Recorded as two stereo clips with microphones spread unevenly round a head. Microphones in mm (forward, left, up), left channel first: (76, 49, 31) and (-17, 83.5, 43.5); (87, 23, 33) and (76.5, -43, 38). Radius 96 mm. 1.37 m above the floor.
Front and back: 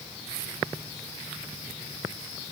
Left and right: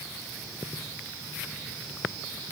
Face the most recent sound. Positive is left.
No sound to turn to.